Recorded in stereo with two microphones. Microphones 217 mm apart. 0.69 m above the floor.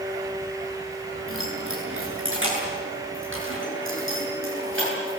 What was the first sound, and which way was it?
Keys jangling, 75° right (ahead or behind).